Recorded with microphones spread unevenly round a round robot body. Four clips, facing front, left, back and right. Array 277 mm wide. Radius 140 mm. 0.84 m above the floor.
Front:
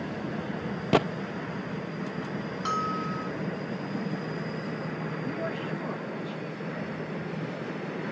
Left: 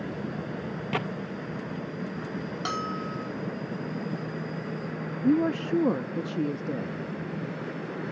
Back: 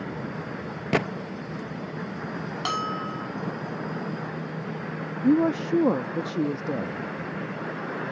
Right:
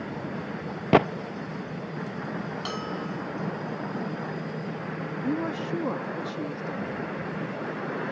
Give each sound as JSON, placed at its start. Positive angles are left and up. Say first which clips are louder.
{"t": 0.9, "sound": "a gunshot", "louder": "right 12 dB, front 2 dB", "azimuth_deg": -85}
{"t": 2.6, "sound": "a bell", "louder": "left 1 dB, even", "azimuth_deg": 140}
{"t": 5.2, "sound": "a woman speaking", "louder": "left 6 dB, back 15 dB", "azimuth_deg": 160}